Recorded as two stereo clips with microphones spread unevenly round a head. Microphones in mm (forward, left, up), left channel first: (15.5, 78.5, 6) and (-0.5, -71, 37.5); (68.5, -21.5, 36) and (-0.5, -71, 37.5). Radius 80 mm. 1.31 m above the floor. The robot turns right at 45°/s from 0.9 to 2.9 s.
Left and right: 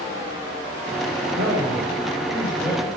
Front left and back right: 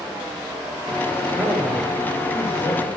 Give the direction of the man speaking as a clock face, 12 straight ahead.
2 o'clock.